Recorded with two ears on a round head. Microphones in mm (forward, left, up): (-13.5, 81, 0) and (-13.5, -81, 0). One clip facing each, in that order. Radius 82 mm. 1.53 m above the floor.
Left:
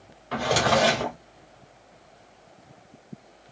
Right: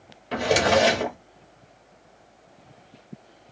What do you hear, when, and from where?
0.3 s a drawer: 25° right (ahead or behind), 1.0 m